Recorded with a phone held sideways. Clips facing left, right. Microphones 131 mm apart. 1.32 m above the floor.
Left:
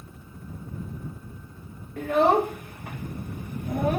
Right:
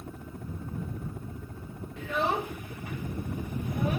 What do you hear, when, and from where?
0.0 s a helicopter: 70° right (ahead or behind)
2.0 s a child speaking: 50° left (ahead or behind)